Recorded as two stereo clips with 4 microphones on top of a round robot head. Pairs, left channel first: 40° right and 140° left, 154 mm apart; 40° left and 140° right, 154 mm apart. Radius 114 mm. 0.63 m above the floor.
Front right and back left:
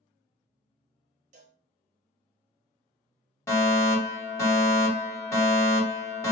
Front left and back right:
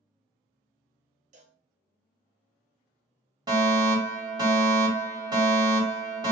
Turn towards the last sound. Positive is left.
turn(degrees=-100)